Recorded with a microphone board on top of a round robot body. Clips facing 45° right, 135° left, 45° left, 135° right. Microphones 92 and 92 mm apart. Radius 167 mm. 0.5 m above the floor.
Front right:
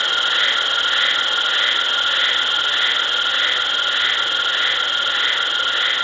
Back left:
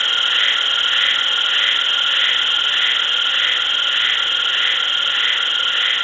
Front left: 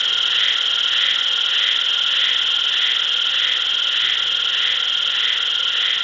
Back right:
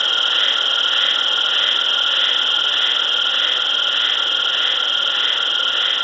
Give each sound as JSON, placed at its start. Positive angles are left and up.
{"t": 0.0, "sound": "an insect", "azimuth_deg": -110}